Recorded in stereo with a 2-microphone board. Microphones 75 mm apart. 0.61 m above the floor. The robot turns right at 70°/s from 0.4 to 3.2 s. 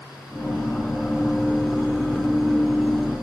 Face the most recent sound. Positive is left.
No sound to turn to.